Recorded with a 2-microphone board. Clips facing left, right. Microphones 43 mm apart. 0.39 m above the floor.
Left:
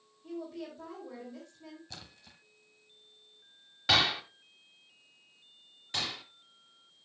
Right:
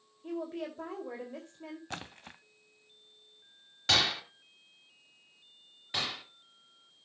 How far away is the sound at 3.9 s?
About 1.2 m.